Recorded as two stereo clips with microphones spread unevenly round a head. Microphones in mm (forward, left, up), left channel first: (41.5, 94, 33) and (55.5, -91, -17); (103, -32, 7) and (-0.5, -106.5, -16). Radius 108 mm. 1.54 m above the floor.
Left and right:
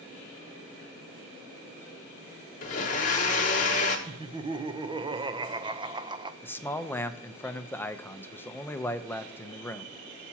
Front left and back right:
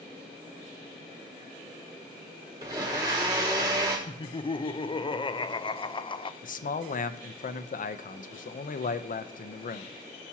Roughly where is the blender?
Behind left.